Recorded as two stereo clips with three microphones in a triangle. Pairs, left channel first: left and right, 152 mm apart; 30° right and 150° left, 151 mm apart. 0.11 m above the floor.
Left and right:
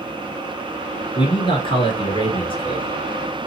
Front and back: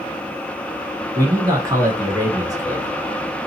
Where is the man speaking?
105° left, 1.4 m.